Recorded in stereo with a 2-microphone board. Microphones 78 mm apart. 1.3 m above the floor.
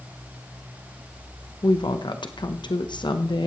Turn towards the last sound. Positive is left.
turn(degrees=60)  # may be behind; listen again after turning